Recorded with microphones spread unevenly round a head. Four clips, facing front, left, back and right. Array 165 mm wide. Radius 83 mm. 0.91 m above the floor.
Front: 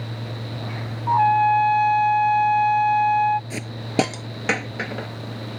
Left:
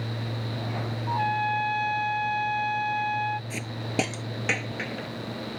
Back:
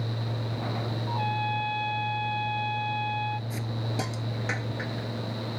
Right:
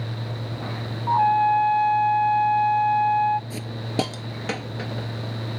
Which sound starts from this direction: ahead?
A hiss, at 3.5 s.